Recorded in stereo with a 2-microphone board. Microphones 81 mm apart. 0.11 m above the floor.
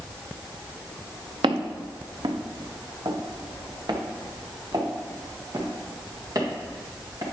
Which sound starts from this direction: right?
Footsteps, at 1.4 s.